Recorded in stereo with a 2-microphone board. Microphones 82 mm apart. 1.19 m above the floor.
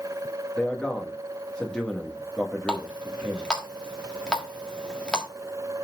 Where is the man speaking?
10° left (ahead or behind), 1.8 m.